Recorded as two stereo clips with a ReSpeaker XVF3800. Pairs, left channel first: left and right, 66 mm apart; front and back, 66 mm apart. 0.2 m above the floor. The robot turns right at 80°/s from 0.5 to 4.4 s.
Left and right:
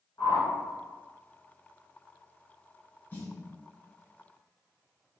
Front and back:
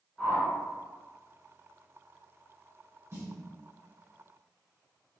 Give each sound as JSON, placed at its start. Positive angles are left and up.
{"t": 0.2, "sound": "a whoosh", "azimuth_deg": 75, "distance_m": 1.1}
{"t": 3.1, "sound": "a snare drum", "azimuth_deg": 145, "distance_m": 0.8}